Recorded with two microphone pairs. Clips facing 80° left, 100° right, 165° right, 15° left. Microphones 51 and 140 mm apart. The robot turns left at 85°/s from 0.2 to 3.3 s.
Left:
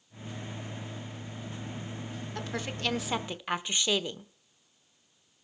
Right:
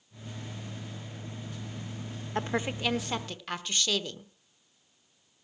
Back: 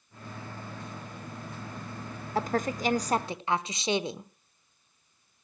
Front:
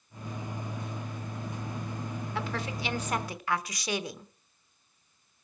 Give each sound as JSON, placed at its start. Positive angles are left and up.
{"t": 2.4, "sound": "a woman speaking", "azimuth_deg": -135, "distance_m": 0.9}